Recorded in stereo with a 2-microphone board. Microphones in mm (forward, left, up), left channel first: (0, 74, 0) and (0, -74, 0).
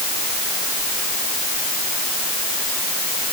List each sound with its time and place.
Only background noise.